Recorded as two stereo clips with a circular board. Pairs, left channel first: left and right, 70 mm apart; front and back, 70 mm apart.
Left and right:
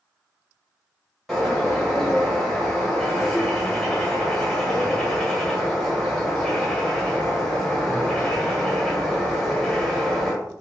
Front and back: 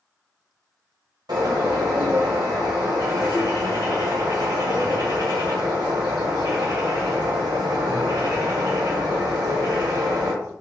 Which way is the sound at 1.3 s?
Straight behind.